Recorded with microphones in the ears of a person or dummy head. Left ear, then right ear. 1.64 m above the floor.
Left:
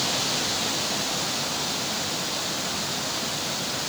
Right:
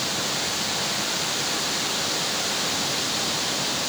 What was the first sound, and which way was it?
Only background noise.